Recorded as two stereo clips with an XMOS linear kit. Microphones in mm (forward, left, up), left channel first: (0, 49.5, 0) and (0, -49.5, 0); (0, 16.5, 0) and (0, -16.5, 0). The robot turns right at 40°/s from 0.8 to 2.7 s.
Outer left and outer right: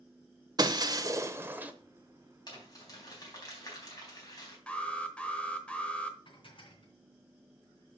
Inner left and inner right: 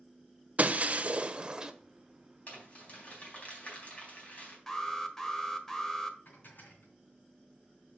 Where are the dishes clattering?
60° left (ahead or behind), 3 m.